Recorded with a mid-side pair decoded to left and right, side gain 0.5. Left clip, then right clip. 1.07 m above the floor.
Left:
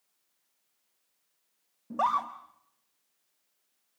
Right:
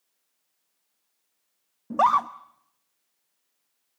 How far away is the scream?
About 1.0 m.